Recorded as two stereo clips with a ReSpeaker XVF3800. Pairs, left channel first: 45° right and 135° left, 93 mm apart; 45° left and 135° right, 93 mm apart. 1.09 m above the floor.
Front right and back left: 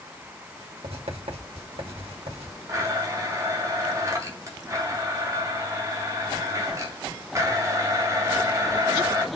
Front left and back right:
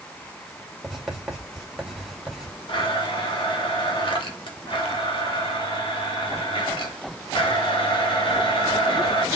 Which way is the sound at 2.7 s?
80° left.